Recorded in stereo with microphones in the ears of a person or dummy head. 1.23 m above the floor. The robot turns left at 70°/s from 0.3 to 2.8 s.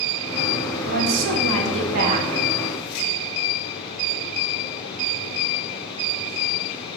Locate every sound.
0.8 s a woman speaking: 50° right, 0.8 m; by 2.3 s 145° right, 0.8 m